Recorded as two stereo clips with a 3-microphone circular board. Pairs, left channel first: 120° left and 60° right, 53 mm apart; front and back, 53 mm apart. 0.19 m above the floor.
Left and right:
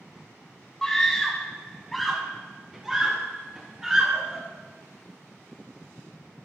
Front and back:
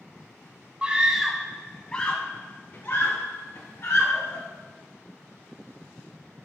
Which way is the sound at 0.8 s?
175° left.